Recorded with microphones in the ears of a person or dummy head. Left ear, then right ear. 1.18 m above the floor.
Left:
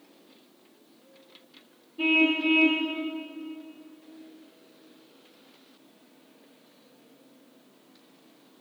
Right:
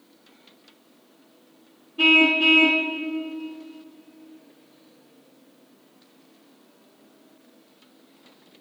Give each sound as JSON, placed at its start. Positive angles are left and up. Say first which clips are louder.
{"t": 2.0, "sound": "a car horn", "louder": "right 7 dB", "side_deg": -55, "distance_m": 2.0}